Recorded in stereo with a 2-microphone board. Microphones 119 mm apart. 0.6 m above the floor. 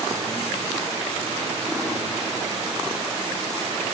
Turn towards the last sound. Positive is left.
No sound to turn to.